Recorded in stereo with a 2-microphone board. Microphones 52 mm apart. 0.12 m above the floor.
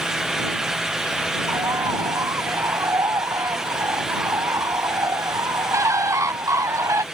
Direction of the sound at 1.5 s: 75° right (ahead or behind).